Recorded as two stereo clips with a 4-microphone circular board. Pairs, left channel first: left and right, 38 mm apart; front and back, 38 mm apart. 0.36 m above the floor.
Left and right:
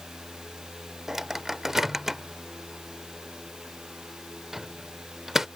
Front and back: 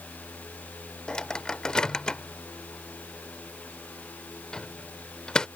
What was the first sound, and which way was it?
A microwave, 25° right.